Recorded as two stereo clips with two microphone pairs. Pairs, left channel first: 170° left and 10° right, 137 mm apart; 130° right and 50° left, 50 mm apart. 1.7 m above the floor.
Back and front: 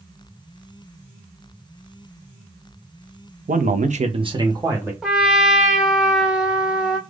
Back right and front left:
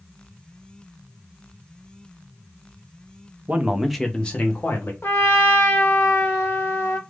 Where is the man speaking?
5° right, 0.5 m; by 4.9 s 85° right, 1.0 m.